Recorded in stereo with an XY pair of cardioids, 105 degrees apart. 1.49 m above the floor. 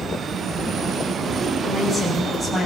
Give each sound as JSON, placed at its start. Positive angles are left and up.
{"t": 1.6, "sound": "a woman speaking", "azimuth_deg": -15, "distance_m": 8.5}